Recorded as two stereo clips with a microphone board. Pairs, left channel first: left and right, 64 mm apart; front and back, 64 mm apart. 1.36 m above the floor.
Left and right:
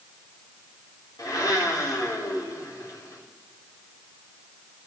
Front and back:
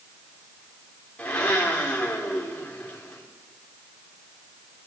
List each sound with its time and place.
1.2 s a blender: 70° left, 3 m